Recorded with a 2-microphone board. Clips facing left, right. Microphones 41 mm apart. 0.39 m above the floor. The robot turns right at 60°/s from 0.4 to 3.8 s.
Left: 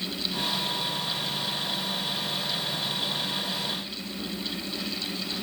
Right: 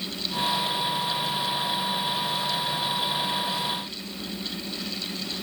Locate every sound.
Only background noise.